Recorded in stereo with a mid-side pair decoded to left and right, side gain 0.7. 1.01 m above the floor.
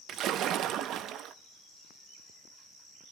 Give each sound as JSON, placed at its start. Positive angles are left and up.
{"t": 0.1, "sound": "a splash", "azimuth_deg": -55, "distance_m": 0.8}